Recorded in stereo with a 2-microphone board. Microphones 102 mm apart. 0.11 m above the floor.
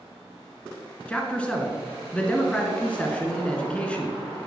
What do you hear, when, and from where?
1.1 s a man speaking: 10° left (ahead or behind), 1.4 m